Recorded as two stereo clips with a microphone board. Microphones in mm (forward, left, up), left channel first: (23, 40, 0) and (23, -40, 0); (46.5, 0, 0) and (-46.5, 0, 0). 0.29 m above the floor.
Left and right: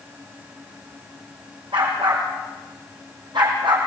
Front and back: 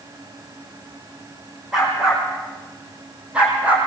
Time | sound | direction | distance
1.7 | a dog barking | 95° right | 7.5 m